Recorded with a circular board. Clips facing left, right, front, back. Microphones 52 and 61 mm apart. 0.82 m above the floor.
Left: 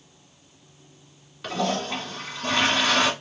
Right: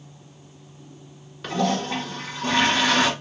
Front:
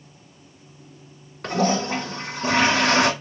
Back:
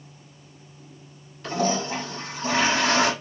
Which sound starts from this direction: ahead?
A toilet flushing, at 1.4 s.